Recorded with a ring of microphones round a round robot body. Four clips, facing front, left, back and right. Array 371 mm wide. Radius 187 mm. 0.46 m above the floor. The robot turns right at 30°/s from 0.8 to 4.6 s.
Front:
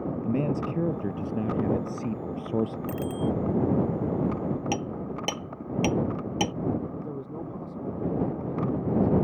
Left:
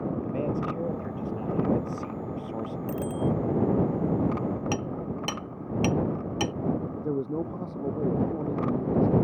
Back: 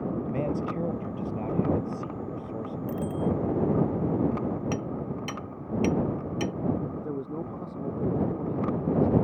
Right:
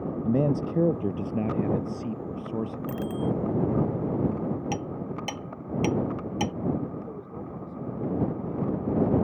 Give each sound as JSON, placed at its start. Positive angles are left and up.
{"t": 0.2, "sound": "a man speaking", "azimuth_deg": -75}
{"t": 2.9, "sound": "a bicycle bell", "azimuth_deg": -35}
{"t": 4.7, "sound": "hammering", "azimuth_deg": 25}
{"t": 7.0, "sound": "a man speaking", "azimuth_deg": 105}